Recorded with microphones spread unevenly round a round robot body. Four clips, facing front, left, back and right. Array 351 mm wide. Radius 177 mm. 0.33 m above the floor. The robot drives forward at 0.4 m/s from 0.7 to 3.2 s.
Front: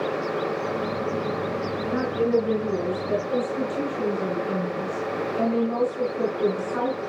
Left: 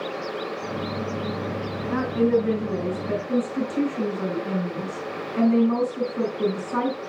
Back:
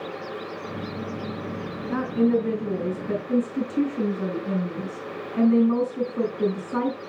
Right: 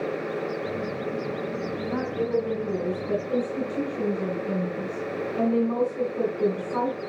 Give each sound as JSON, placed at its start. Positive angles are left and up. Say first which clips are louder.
{"t": 1.9, "sound": "a woman speaking", "louder": "left 6 dB, back 1 dB", "azimuth_deg": 150, "distance_m": 2.5}